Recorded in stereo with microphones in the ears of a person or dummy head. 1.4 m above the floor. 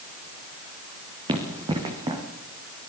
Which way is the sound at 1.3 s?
25° right (ahead or behind).